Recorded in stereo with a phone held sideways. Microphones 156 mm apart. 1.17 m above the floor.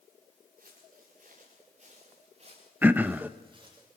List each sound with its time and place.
0.6 s footsteps: 65° right (ahead or behind), 7 m; by 3.8 s 30° right (ahead or behind), 7.5 m
2.8 s throat clearing: 10° right (ahead or behind), 0.8 m